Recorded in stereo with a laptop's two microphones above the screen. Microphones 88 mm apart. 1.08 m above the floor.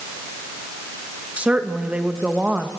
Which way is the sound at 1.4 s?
15° right (ahead or behind).